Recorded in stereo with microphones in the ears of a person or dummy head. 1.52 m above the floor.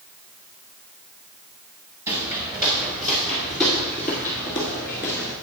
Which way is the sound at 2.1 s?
15° right (ahead or behind).